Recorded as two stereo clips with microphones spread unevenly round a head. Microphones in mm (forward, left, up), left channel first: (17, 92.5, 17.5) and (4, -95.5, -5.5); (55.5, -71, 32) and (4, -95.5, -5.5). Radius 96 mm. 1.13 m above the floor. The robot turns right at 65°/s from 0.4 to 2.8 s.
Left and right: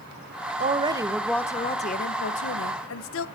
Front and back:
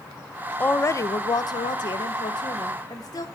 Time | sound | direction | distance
0.6 | a woman speaking | 50° right | 1.1 m